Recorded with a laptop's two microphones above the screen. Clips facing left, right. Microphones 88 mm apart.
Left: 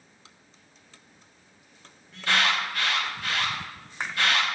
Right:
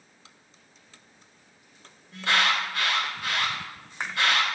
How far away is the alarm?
About 1.8 m.